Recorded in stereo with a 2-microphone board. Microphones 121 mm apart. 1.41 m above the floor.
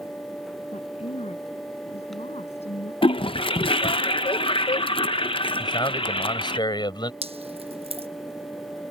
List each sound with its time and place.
0.7 s a woman speaking: 60° left (ahead or behind)
3.0 s a toilet flushing: 45° left (ahead or behind)
5.6 s a man speaking: 40° left (ahead or behind)
7.2 s dripping: 50° right (ahead or behind)